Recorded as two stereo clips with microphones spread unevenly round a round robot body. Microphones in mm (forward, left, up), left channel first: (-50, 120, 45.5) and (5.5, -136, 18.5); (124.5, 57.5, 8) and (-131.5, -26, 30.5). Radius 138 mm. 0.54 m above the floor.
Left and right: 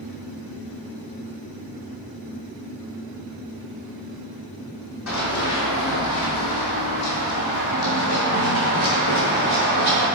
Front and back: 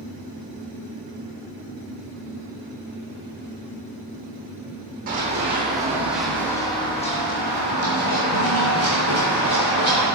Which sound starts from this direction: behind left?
Running footsteps, at 5.1 s.